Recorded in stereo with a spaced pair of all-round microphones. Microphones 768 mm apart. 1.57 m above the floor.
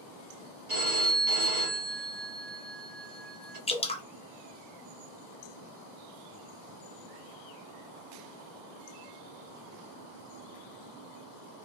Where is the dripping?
10° left (ahead or behind), 0.5 m.